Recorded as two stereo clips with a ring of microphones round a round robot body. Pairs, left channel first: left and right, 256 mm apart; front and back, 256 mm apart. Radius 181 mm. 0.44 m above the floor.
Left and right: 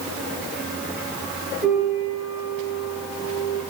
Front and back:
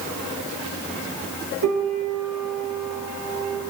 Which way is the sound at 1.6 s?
160° right.